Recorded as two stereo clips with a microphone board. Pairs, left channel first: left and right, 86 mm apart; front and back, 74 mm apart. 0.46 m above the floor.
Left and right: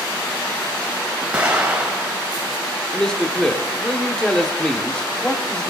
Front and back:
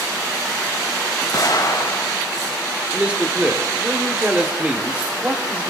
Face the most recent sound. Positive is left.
turn(degrees=155)